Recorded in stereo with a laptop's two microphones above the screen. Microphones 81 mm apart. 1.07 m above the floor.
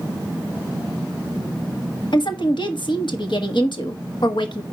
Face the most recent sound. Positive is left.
turn(degrees=70)  # may be behind; listen again after turning